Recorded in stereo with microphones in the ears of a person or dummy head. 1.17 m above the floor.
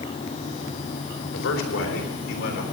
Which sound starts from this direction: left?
A man speaking, at 1.3 s.